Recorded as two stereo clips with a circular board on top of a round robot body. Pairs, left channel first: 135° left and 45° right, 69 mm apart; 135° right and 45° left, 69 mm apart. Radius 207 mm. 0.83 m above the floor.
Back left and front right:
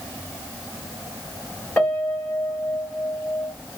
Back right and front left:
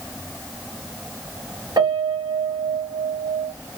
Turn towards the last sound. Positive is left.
turn(degrees=65)